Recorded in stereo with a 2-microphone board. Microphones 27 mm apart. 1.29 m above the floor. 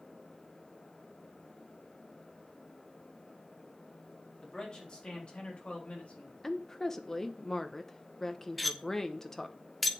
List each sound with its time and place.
4.4 s a man speaking: 25° left (ahead or behind), 3.5 m; by 6.3 s 60° left (ahead or behind), 3 m
6.4 s a woman speaking: 15° left (ahead or behind), 1.0 m
8.6 s cutlery clinking: centre (ahead or behind), 0.9 m